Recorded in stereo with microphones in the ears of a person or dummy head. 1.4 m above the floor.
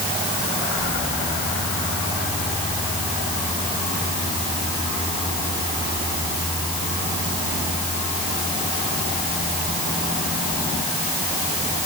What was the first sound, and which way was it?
Only background noise.